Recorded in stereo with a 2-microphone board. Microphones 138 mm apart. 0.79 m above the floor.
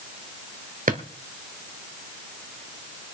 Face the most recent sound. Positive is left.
turn(degrees=-80)